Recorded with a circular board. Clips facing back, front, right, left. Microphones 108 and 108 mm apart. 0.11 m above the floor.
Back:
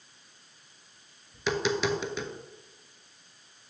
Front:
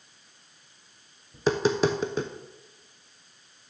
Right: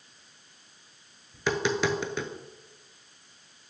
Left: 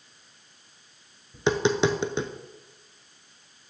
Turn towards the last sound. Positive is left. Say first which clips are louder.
# front 5 dB, left 4 dB
turn(degrees=35)